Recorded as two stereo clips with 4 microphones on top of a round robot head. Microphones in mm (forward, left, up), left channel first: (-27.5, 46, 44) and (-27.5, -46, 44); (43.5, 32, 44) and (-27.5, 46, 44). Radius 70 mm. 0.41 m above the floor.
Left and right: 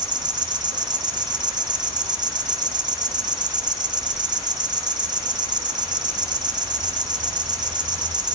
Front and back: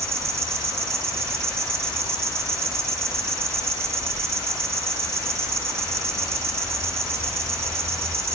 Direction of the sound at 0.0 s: 130° right.